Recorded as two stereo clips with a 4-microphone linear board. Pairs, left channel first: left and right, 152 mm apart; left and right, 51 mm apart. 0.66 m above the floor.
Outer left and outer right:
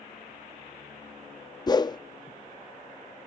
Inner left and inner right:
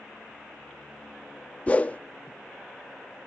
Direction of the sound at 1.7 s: 25° left (ahead or behind).